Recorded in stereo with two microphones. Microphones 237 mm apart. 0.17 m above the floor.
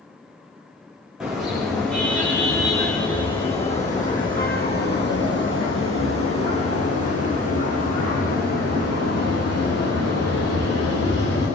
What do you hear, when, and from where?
1.2 s a car horn: 5° right (ahead or behind), 7 m; by 11.5 s 80° left, 11.5 m